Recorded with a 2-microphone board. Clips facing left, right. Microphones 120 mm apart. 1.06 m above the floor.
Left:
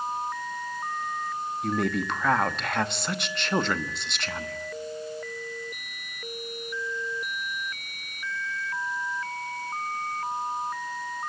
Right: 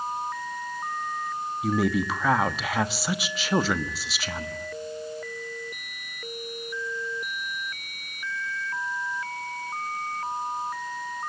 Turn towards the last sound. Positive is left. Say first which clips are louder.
# right 3 dB
turn(degrees=-5)  # may be behind; listen again after turning